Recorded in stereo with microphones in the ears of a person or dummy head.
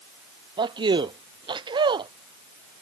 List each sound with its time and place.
0.6 s a man speaking: 25° right (ahead or behind)